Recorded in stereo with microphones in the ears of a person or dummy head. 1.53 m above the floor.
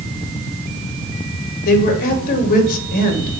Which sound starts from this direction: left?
A woman speaking, at 1.6 s.